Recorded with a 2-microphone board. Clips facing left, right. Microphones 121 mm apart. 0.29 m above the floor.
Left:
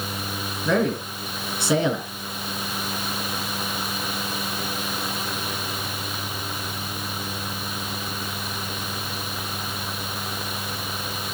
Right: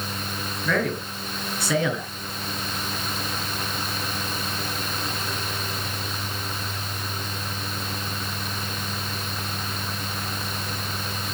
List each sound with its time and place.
0.7 s a man speaking: 25° left (ahead or behind), 3.5 m